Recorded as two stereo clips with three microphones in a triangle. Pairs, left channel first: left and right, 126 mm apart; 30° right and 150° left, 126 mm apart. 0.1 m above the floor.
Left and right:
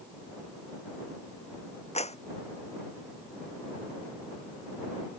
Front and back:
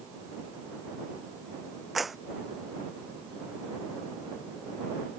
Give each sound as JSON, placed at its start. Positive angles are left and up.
{"t": 1.9, "sound": "a clap", "azimuth_deg": 60}